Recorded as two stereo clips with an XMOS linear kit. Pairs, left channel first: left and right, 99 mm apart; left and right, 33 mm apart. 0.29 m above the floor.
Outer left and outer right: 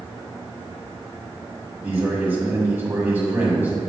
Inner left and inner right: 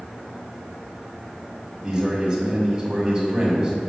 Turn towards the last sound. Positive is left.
turn(degrees=-20)  # may be behind; listen again after turning